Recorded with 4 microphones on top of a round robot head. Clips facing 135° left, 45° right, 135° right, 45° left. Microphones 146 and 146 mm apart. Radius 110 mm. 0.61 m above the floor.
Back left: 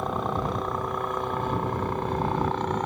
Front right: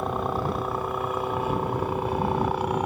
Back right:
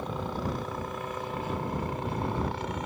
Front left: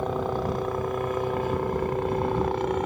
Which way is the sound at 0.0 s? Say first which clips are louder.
Front right 1 dB, front left 6 dB; 40° left.